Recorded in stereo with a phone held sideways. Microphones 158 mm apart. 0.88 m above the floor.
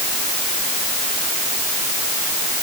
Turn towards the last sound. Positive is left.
No sound to turn to.